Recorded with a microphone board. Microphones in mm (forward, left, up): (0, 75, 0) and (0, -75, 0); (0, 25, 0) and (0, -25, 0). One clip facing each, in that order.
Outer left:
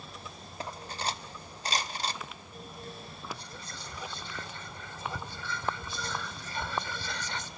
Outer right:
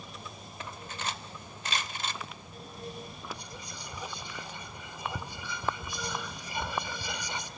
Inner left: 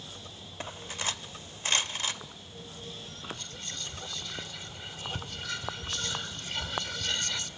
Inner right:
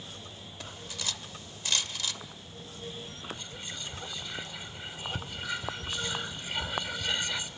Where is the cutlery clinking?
35° left (ahead or behind), 0.6 m.